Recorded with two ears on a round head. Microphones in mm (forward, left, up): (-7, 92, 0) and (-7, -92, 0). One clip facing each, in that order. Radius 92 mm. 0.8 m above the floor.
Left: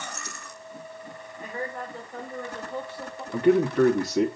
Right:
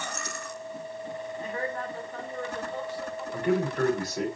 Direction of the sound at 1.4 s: 10° left (ahead or behind).